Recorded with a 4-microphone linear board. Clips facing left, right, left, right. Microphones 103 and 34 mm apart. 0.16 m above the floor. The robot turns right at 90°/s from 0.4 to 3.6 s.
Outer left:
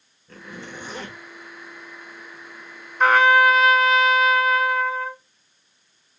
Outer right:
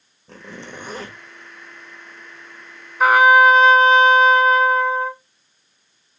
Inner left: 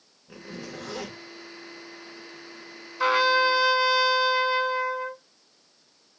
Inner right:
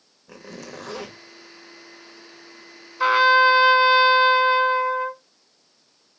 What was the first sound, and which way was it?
A zipper, 90° right.